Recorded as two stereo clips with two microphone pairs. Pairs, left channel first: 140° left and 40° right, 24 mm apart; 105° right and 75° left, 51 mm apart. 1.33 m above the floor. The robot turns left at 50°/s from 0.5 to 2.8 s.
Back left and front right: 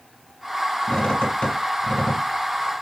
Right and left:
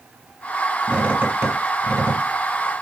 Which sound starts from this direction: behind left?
A squeak, at 0.9 s.